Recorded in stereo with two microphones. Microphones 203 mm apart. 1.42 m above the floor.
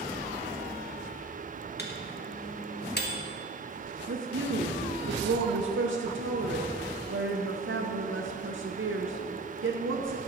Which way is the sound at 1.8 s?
55° left (ahead or behind).